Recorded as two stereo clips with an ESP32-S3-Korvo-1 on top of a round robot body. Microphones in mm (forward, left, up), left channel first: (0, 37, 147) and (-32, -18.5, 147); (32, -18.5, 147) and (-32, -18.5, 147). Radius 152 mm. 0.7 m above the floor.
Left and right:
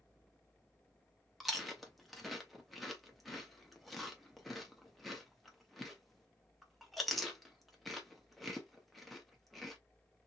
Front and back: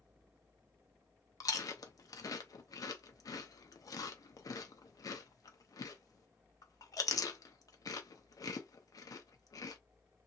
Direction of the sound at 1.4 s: 30° right.